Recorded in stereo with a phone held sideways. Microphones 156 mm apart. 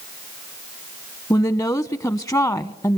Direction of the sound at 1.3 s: 20° left (ahead or behind).